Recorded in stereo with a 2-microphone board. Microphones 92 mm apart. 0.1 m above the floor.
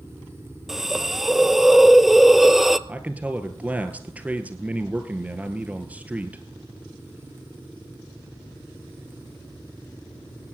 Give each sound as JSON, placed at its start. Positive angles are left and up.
{"t": 0.7, "sound": "a hiss", "side_deg": -5, "distance_m": 0.5}
{"t": 2.9, "sound": "a man speaking", "side_deg": -15, "distance_m": 1.7}